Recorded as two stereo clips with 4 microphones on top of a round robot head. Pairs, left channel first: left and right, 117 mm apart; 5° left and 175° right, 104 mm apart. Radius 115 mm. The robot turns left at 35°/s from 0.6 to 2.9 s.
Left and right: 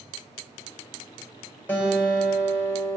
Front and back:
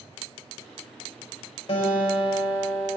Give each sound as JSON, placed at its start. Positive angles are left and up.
{"t": 1.7, "sound": "a guitar", "azimuth_deg": 15, "distance_m": 6.0}